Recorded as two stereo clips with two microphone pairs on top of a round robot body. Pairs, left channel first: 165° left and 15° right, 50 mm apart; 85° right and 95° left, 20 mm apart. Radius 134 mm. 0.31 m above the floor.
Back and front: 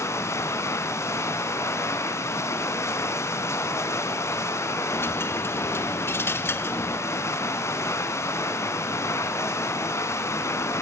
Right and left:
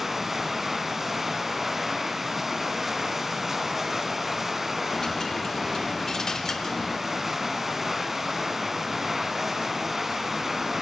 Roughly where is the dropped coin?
Behind right.